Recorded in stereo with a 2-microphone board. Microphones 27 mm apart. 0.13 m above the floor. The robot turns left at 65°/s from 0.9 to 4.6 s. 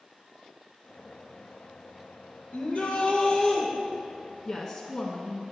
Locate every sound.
2.5 s a shout: 85° left, 3 m; by 3.7 s 10° left, 3 m
4.5 s a woman speaking: 5° left (ahead or behind), 1.1 m; by 5.4 s 10° left (ahead or behind), 1.1 m